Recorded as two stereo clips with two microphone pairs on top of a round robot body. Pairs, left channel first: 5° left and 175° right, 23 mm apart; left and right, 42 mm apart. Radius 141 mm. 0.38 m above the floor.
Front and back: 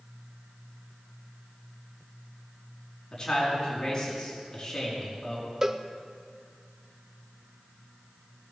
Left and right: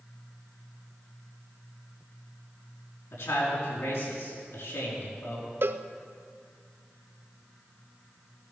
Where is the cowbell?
105° right, 0.8 m.